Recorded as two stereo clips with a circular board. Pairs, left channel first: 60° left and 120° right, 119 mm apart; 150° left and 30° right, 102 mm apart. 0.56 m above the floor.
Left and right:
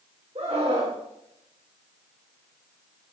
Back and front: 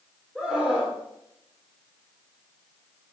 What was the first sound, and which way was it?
A scream, 115° right.